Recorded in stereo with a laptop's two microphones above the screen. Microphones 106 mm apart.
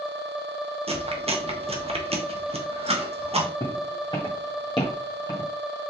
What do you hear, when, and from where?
0.9 s chewing: 70° right (ahead or behind), 0.7 m
3.6 s footsteps: 50° left (ahead or behind), 2.5 m; by 5.5 s 45° left (ahead or behind), 1.5 m